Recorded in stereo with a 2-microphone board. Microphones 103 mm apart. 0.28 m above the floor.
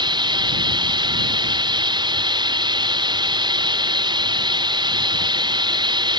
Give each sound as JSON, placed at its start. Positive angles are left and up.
{"t": 0.0, "sound": "running water", "side_deg": -45}